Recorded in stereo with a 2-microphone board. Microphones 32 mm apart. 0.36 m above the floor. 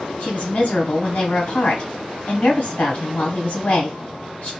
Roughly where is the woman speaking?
Left.